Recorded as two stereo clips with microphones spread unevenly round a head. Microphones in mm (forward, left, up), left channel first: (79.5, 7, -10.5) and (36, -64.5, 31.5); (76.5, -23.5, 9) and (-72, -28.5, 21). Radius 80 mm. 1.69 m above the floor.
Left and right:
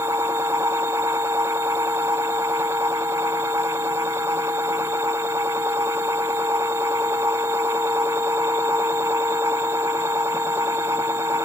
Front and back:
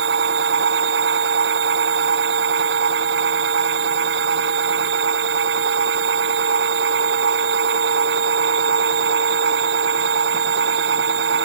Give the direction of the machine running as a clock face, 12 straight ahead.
6 o'clock.